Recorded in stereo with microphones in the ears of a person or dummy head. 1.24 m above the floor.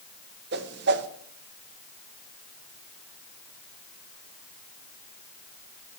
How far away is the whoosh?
About 0.9 m.